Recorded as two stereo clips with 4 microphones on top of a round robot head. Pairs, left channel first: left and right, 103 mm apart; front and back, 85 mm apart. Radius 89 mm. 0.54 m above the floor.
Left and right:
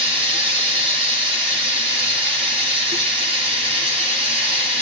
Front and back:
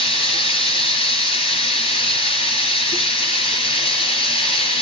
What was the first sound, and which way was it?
Running water, 10° right.